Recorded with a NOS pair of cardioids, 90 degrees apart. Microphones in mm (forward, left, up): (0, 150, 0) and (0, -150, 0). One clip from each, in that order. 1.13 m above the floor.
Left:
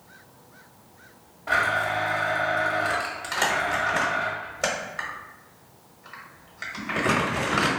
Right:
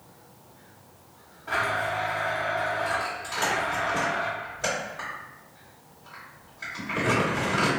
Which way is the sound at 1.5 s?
55° left.